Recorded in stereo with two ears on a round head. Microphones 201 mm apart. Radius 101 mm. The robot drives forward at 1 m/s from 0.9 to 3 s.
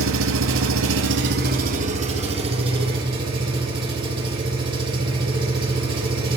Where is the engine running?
65° right (ahead or behind), 1.2 m; by 6.4 s 20° right (ahead or behind), 3 m.